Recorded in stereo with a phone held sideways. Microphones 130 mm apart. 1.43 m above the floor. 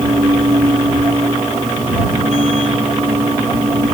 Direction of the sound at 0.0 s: 60° right (ahead or behind).